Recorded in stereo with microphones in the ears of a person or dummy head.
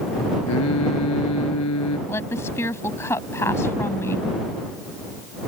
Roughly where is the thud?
I don't hear a thud.